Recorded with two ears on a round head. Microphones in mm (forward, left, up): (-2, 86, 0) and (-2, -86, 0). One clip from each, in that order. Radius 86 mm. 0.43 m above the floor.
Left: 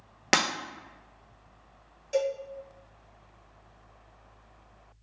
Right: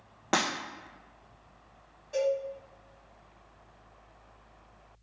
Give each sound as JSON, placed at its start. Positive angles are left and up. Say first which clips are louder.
{"t": 0.3, "sound": "breaking glass", "louder": "left 4 dB", "side_deg": 70, "distance_m": 1.1}
{"t": 2.1, "sound": "a cowbell", "louder": "even", "side_deg": 60, "distance_m": 2.0}